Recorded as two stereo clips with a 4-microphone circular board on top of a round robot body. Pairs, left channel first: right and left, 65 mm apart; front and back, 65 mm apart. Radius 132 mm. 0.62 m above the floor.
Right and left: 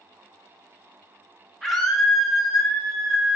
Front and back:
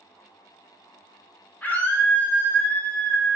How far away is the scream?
About 1.2 m.